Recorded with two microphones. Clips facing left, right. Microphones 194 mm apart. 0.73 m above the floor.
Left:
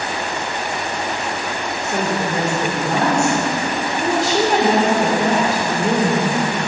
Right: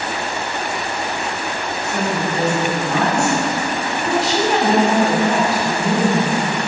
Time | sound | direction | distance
1.8 | a woman speaking | 45° left (ahead or behind) | 2.5 m